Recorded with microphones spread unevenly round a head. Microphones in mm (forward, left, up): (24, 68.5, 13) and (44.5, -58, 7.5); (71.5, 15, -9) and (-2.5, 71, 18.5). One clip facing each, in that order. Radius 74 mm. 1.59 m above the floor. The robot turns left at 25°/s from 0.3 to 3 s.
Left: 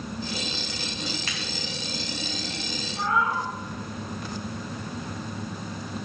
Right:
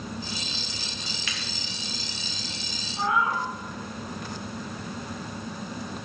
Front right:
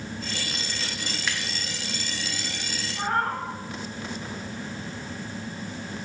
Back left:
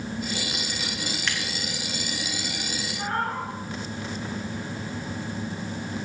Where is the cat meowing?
Straight ahead, 5.5 m; by 3.5 s 5° right, 5.5 m.